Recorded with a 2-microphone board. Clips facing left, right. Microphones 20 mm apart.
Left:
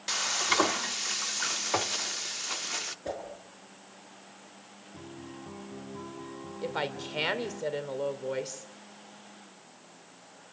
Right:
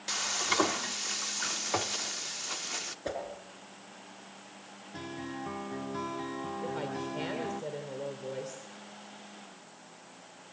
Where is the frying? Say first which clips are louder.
Left 3 dB; 10° left (ahead or behind), 0.5 m.